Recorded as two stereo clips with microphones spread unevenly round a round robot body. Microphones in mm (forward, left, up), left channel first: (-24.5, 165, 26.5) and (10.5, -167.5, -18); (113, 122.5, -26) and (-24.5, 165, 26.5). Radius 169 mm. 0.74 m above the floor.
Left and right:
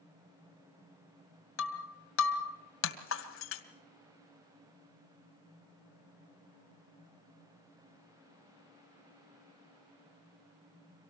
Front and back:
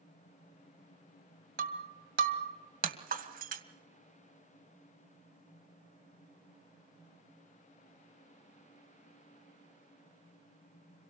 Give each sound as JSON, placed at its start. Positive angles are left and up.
{"t": 1.6, "sound": "breaking glass", "azimuth_deg": 150, "distance_m": 2.5}